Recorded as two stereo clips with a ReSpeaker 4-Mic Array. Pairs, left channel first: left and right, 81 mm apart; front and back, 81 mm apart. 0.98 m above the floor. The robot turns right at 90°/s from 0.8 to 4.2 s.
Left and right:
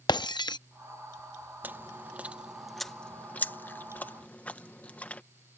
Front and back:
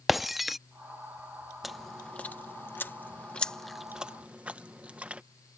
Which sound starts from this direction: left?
Breaking glass, at 0.1 s.